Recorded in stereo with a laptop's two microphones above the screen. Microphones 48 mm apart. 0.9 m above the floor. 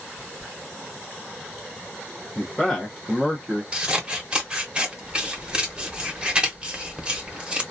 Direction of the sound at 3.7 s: 20° right (ahead or behind).